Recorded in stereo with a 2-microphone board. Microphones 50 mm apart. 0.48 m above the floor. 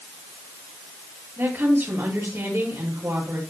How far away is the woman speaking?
About 9.5 m.